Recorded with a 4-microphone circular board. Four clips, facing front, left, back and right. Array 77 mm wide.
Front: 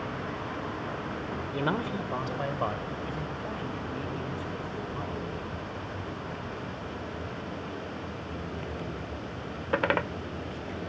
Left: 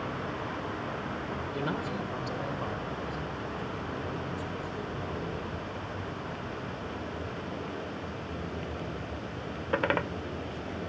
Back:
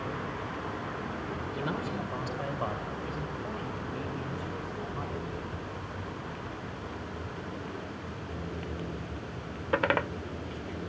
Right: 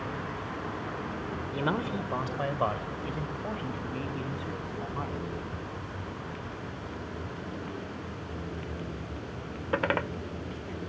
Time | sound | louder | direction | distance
1.5 | a man speaking | right 4 dB, front 5 dB | 30° right | 1.2 m